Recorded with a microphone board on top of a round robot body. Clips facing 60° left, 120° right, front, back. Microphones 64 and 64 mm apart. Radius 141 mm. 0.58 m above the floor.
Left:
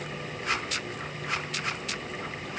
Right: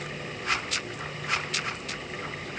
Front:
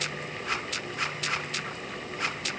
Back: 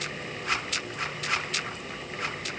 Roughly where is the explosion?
I don't hear an explosion.